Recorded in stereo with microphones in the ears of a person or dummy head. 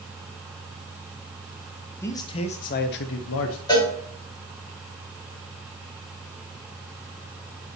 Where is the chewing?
I don't hear chewing.